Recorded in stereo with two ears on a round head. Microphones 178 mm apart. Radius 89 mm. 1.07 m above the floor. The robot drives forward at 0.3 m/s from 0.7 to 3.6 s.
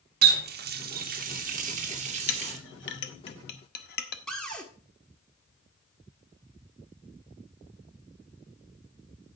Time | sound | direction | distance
0.2 | a running tap | 50° right (ahead or behind) | 1.0 m
2.3 | a clink | 70° left (ahead or behind) | 0.7 m
4.3 | a cupboard door | 5° left (ahead or behind) | 1.3 m